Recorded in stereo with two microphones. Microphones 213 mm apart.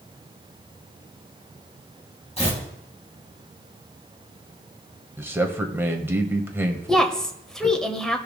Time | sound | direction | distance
2.4 | tearing paper | 30° left (ahead or behind) | 2.5 m
5.2 | a man speaking | 10° right (ahead or behind) | 1.2 m
6.9 | a woman speaking | 5° left (ahead or behind) | 1.1 m